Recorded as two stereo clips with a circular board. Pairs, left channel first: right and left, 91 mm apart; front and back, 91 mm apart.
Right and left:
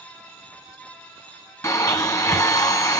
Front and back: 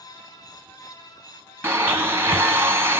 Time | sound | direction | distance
1.6 | a blender | 130° right | 1.2 m